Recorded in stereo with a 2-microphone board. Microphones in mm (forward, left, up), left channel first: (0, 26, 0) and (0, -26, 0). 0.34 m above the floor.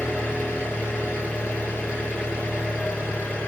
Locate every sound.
0.0 s an engine running: 20° left (ahead or behind), 2.5 m